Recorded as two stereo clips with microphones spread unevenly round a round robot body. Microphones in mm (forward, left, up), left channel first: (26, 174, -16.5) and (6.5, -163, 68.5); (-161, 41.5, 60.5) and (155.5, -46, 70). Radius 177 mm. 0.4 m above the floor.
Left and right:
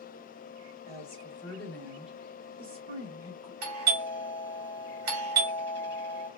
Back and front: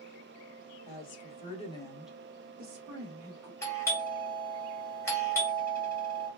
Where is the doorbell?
120° right, 1.7 m.